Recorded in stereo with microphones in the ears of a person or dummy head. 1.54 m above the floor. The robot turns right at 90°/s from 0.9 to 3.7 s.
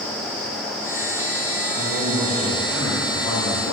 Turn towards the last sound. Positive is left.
turn(degrees=75)